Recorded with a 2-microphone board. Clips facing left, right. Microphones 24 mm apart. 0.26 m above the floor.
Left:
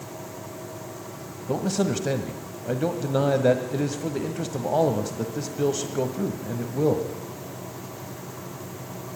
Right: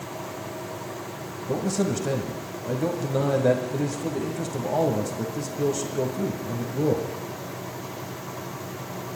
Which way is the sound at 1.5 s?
25° left (ahead or behind).